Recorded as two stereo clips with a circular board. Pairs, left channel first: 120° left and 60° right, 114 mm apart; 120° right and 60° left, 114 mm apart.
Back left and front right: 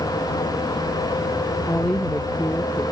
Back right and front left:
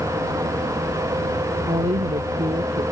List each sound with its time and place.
1.6 s a woman speaking: 45° left; by 2.8 s 50° left